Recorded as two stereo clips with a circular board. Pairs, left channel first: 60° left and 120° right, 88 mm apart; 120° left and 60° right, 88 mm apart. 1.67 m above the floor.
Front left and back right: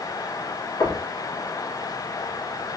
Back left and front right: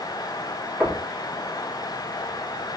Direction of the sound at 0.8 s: 20° left.